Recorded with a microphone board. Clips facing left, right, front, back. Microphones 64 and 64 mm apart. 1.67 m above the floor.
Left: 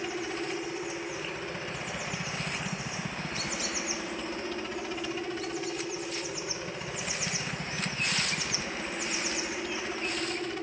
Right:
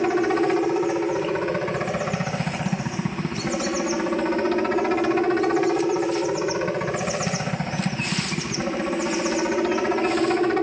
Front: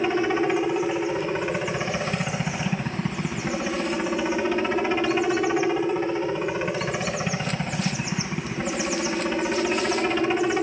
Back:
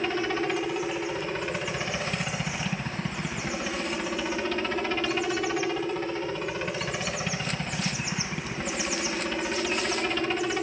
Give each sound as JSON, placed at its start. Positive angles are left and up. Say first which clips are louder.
{"t": 0.0, "sound": "a helicopter", "louder": "right 14 dB, front 5 dB", "azimuth_deg": -70}